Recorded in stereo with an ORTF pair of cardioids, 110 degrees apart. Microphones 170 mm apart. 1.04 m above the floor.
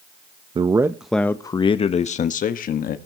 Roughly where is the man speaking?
Ahead right.